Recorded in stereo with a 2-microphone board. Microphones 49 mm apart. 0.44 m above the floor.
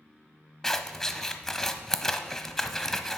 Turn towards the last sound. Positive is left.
turn(degrees=10)  # may be behind; listen again after turning